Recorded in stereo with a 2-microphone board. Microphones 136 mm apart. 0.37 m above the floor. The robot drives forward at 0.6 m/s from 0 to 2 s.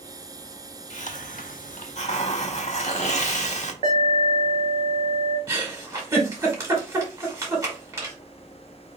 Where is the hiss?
60° left (ahead or behind), 0.6 m; by 3.7 s 55° left (ahead or behind), 0.7 m.